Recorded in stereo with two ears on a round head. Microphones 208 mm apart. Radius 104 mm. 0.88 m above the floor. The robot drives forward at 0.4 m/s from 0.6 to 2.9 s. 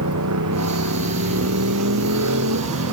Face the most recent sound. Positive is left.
turn(degrees=-75)  # may be behind; listen again after turning